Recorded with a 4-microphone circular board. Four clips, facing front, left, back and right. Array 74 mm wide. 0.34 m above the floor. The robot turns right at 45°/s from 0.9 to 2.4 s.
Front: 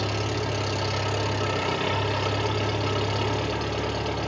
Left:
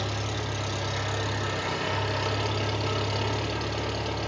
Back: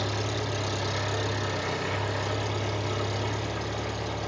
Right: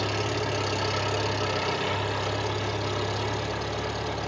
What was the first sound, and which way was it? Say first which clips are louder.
An engine running: right 4 dB, front 3 dB; 55° right.